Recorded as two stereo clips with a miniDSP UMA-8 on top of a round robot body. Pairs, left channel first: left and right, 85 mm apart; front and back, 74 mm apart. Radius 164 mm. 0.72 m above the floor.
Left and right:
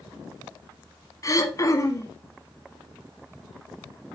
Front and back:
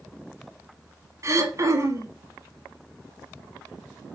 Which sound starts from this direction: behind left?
Throat clearing, at 1.2 s.